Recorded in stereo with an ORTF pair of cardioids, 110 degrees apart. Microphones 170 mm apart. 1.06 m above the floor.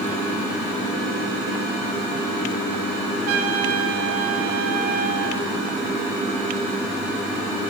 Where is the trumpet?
70° right, 4 m.